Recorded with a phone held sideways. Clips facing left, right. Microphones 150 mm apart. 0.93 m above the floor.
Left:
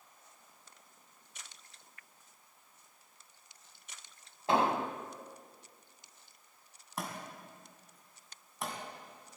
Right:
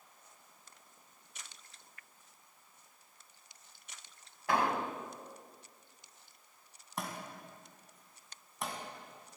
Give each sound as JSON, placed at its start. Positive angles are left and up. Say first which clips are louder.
{"t": 4.5, "sound": "an explosion", "louder": "left 2 dB", "side_deg": 25, "distance_m": 1.0}
{"t": 7.0, "sound": "a thud", "louder": "even", "side_deg": 0, "distance_m": 3.5}